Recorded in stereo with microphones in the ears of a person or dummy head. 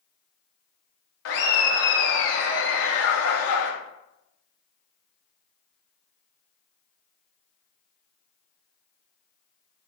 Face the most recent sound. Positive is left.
turn(degrees=65)  # may be behind; listen again after turning